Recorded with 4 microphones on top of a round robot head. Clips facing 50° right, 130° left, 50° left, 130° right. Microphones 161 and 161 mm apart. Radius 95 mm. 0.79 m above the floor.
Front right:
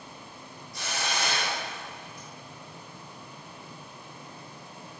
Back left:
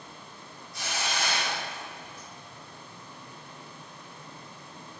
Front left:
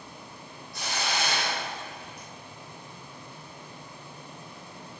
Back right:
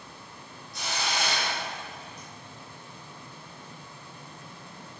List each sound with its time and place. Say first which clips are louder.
0.7 s a hiss: front right 1 dB, front left 1 dB; 5° left, 1.3 m